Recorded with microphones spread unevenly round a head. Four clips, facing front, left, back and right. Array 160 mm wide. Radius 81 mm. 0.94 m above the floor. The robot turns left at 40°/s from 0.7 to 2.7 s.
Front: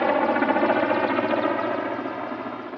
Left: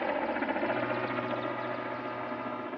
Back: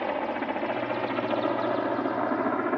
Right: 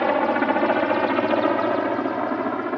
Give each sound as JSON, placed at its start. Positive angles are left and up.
{"t": 0.0, "sound": "a helicopter", "azimuth_deg": -50}